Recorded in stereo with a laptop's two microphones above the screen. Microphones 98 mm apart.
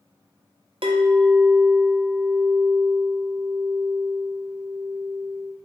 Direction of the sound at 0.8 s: 65° right (ahead or behind).